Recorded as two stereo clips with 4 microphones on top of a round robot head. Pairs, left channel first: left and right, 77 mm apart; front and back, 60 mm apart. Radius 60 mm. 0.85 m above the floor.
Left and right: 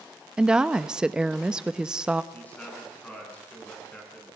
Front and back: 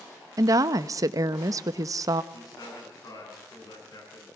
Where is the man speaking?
20° left, 7.5 m.